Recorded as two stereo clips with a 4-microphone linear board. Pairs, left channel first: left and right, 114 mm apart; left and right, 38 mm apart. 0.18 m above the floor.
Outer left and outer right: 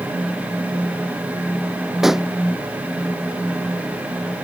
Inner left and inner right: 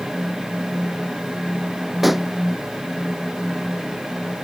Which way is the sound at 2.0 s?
5° right (ahead or behind).